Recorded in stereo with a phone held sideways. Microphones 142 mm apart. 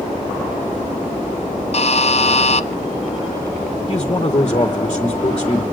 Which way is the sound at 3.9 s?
35° left (ahead or behind).